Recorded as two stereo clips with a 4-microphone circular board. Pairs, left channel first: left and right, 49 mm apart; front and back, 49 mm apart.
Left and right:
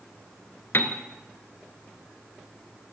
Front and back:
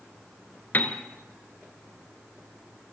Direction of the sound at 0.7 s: 50° left.